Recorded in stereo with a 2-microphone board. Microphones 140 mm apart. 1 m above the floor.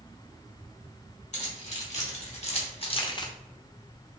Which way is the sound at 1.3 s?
55° left (ahead or behind).